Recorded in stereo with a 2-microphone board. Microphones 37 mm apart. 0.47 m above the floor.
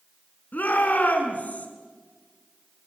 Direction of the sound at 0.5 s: 50° left (ahead or behind).